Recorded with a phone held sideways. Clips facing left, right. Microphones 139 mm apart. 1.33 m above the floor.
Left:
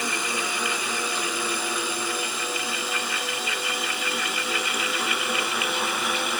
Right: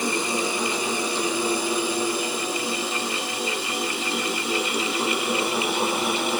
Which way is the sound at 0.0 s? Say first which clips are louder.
Right 5 dB; 30° right (ahead or behind).